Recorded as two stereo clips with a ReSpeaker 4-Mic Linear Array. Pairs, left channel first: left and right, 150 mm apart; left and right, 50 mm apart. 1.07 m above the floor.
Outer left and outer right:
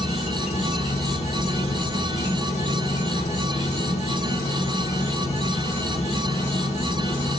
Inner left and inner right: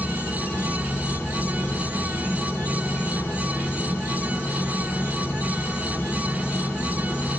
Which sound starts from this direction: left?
An insect, at 0.0 s.